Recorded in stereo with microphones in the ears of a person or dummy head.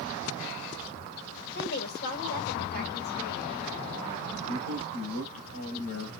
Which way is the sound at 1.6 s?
55° left (ahead or behind).